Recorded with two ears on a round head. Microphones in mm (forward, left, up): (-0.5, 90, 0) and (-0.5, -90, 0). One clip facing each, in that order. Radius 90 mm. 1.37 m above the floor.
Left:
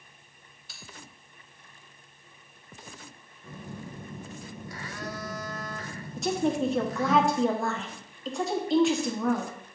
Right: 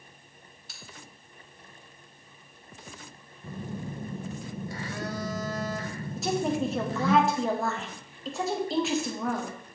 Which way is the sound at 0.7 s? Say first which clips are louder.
Right 1 dB; 40° right (ahead or behind).